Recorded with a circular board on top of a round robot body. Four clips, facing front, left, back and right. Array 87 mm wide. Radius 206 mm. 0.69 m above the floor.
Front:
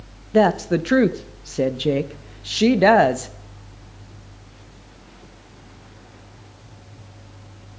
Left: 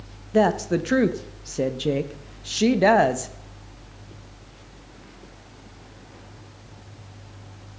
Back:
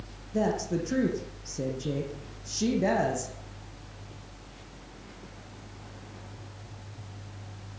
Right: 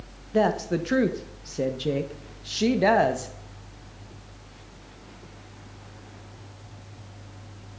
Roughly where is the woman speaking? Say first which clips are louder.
Left 3 dB, front 11 dB; ahead.